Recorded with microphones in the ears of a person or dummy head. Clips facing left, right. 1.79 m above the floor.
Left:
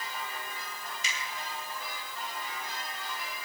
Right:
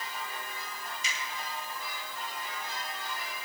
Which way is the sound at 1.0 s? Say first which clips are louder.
Left 2 dB; 60° left (ahead or behind).